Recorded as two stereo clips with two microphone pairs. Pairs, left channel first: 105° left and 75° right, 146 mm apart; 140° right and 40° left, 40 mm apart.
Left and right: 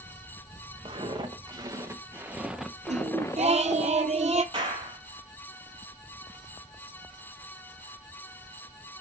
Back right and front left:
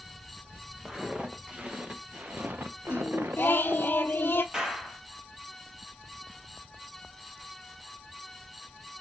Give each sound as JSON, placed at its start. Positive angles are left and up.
{"t": 0.8, "sound": "footsteps", "azimuth_deg": -25, "distance_m": 1.6}
{"t": 2.9, "sound": "singing", "azimuth_deg": -110, "distance_m": 0.6}
{"t": 4.5, "sound": "a clap", "azimuth_deg": -30, "distance_m": 2.0}